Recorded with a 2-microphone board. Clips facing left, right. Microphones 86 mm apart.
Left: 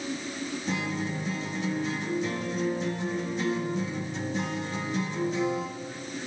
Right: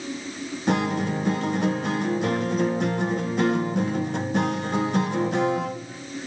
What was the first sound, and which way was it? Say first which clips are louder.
A guitar: right 10 dB; 60° right (ahead or behind).